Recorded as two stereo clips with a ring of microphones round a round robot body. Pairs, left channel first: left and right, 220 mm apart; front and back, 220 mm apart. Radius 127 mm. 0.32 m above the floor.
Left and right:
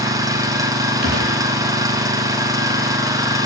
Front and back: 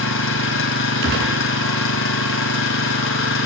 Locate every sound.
0.0 s an engine running: 20° right, 2 m
1.0 s a gunshot: 140° right, 2.5 m